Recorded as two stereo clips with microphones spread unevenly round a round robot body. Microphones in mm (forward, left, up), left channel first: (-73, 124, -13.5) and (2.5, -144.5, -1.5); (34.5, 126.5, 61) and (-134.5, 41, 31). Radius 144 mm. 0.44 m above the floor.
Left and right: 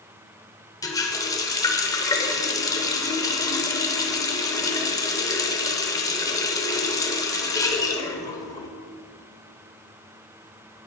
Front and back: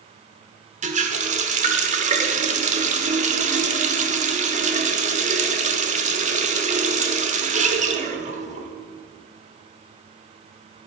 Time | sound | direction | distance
0.8 | a running tap | straight behind | 1.0 m